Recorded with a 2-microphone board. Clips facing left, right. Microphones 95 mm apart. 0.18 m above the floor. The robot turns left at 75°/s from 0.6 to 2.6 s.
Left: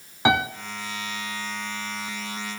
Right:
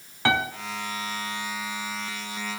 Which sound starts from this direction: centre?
A piano, at 0.2 s.